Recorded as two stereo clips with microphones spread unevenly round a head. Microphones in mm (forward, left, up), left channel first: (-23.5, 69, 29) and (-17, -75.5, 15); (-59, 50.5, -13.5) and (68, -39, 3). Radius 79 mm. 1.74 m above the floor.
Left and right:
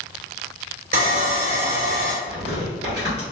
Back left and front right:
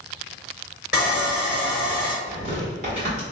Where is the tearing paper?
65° right, 1.3 m.